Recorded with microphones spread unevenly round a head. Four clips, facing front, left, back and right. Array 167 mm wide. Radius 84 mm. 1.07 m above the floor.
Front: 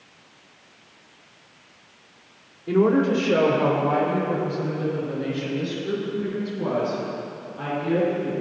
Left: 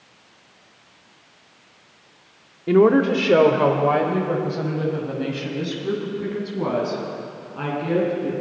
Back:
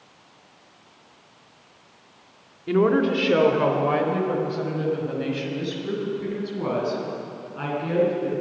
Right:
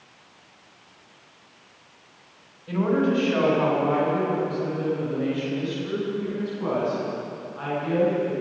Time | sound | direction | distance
2.7 | a woman speaking | 95° left | 2 m